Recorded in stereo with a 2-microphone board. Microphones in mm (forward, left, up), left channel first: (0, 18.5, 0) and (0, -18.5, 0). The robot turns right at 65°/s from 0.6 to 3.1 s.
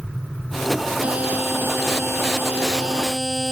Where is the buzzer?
150° right; by 3.5 s 15° right.